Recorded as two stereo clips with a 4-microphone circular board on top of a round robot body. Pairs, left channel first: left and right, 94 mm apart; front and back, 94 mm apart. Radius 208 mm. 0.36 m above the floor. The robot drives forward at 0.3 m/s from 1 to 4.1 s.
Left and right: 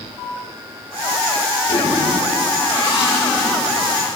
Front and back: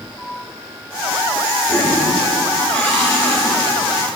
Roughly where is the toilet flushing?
Ahead left.